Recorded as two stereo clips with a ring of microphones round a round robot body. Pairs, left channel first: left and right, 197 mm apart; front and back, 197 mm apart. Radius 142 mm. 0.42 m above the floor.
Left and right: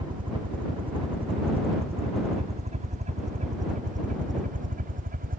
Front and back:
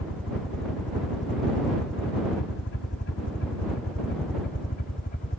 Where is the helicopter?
25° right; by 5.4 s 55° right.